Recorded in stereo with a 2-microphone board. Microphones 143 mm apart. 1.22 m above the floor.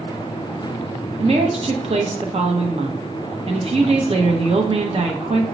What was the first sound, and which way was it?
A woman speaking, 45° right (ahead or behind).